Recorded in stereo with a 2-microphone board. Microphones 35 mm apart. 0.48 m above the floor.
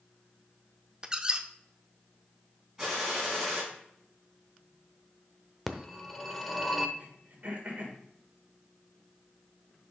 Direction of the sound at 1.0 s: 20° right (ahead or behind).